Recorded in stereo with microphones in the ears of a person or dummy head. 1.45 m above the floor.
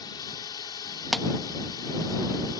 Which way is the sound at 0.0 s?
25° left (ahead or behind).